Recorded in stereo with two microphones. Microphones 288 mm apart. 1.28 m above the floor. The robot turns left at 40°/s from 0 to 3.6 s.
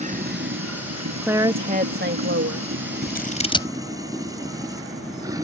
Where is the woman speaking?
5° right; by 2.7 s 65° right.